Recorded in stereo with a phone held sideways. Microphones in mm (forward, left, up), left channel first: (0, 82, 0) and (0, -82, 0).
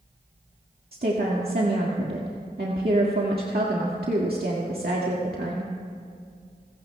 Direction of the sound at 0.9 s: 70° right (ahead or behind).